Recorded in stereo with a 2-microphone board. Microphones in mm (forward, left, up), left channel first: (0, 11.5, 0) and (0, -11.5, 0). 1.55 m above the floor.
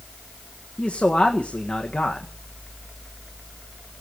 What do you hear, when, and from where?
0.8 s a man speaking: 60° left (ahead or behind), 1.5 m